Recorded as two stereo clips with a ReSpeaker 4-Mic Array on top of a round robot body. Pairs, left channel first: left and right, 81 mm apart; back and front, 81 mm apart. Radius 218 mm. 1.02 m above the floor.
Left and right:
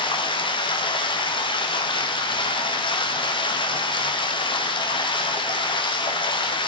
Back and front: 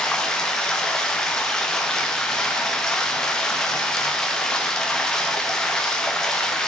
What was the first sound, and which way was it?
Running water, 100° left.